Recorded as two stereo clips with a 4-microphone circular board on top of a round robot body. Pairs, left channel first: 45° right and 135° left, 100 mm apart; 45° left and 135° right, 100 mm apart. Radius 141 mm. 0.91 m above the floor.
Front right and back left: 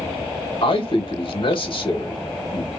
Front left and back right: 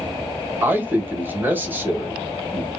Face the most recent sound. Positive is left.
turn(degrees=-65)